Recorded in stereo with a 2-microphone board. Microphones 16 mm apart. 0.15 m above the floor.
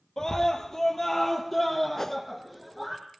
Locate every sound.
0.2 s a scream: 35° left (ahead or behind), 3 m; by 3.0 s centre (ahead or behind), 5 m
2.0 s a whoosh: 20° left (ahead or behind), 1.3 m